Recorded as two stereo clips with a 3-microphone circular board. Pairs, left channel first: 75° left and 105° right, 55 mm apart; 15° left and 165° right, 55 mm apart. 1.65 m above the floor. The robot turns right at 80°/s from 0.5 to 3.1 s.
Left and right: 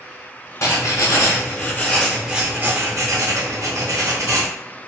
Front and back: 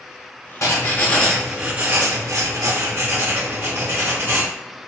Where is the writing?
40° left, 0.6 m; by 4.5 s 120° right, 0.6 m.